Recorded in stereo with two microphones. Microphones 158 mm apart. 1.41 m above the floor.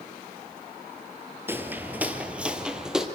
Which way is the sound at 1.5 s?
15° right (ahead or behind).